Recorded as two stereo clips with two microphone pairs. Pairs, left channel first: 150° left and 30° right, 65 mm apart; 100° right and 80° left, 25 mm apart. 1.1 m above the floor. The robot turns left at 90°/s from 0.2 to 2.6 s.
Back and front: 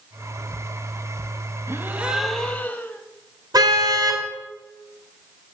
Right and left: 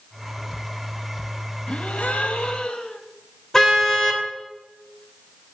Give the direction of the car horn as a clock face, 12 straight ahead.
1 o'clock.